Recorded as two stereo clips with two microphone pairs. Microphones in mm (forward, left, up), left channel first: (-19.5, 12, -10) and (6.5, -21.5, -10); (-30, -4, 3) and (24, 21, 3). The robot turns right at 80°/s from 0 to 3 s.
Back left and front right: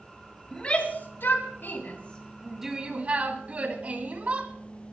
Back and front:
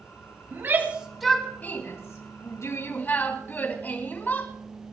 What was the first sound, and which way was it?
A shout, 60° left.